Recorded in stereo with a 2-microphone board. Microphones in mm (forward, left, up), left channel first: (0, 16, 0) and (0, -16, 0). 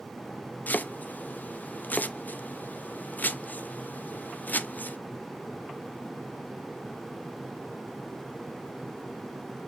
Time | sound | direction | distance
0.7 | chopping | 55° left (ahead or behind) | 0.5 m